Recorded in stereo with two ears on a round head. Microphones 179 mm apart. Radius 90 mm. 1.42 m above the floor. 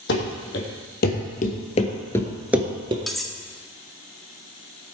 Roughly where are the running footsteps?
Left.